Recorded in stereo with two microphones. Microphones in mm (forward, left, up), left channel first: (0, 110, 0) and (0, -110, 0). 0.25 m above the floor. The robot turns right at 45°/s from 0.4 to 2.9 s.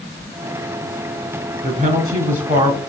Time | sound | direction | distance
1.6 | a woman speaking | 90° right | 1.3 m